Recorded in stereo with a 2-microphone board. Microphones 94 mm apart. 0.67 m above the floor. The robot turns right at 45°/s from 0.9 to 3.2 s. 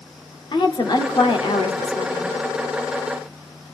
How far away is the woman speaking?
About 1.3 m.